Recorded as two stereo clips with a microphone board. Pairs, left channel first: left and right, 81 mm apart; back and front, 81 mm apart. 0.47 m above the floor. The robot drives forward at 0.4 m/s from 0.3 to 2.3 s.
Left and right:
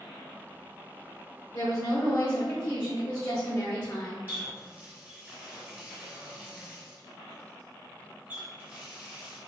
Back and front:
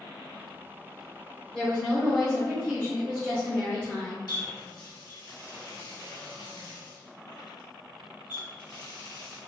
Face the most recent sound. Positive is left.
turn(degrees=-155)